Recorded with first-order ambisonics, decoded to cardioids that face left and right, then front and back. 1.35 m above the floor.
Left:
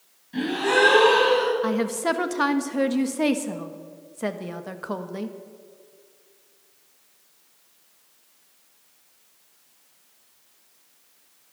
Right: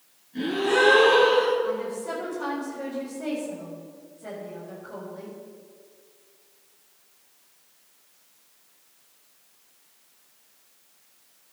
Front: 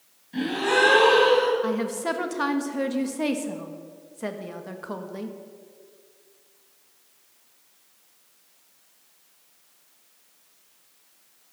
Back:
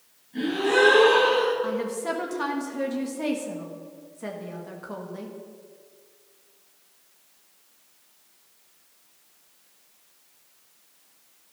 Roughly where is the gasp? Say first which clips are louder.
Left 1 dB, even; ahead left.